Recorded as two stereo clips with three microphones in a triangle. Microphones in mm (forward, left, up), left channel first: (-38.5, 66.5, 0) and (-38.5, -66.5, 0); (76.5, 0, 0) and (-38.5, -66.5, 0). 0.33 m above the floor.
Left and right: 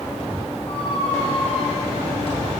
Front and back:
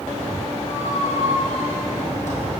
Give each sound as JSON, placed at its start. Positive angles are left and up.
{"t": 0.7, "sound": "a squeak", "azimuth_deg": 45, "distance_m": 2.5}